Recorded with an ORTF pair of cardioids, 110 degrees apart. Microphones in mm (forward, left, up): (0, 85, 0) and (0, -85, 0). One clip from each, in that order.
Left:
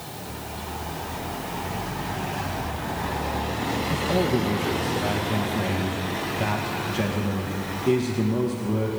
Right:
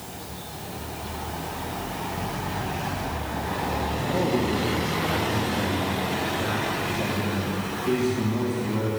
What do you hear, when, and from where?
3.9 s a man speaking: 65° left, 1.9 m